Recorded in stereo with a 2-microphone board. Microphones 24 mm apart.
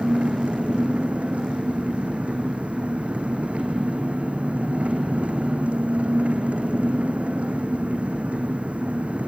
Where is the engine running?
75° right (ahead or behind), 1.6 m.